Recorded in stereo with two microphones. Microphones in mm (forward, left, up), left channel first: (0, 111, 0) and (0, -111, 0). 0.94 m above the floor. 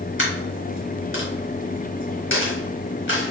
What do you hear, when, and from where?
0.2 s a dropped coin: 60° left (ahead or behind), 1.8 m